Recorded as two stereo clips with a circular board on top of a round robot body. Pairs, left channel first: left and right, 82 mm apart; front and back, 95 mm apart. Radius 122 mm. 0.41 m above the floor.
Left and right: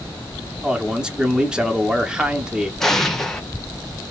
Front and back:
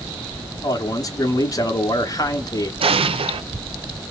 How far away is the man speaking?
About 1.1 m.